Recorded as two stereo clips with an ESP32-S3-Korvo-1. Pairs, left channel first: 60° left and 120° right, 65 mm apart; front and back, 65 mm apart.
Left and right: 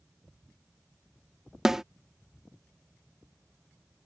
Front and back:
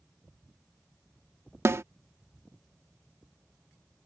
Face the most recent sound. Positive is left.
turn(degrees=160)